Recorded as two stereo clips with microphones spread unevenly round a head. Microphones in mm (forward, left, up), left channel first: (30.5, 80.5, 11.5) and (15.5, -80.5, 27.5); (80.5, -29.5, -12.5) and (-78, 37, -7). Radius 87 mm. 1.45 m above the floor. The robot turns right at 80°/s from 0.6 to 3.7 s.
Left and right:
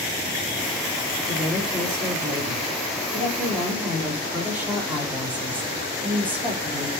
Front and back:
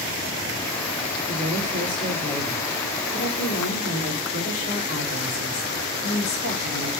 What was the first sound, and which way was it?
A woman speaking, 150° left.